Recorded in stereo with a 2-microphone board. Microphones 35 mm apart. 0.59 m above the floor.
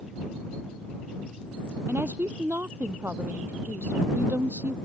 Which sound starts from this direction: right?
A woman speaking, at 1.9 s.